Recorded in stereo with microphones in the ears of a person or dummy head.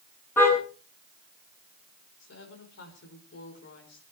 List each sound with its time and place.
0.4 s a car horn: 10° left (ahead or behind), 8 m
2.2 s a woman speaking: 70° left (ahead or behind), 6 m